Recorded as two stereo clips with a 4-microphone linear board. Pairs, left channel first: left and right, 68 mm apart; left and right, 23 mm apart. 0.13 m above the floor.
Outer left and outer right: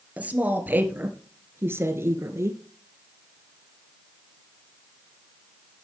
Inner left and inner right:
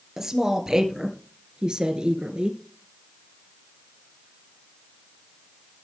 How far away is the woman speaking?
About 2.5 m.